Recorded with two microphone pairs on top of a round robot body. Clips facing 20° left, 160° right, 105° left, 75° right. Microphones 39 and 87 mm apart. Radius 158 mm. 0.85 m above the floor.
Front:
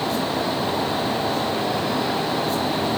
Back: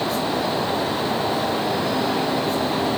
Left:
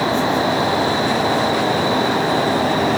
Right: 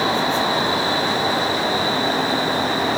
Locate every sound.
Only background noise.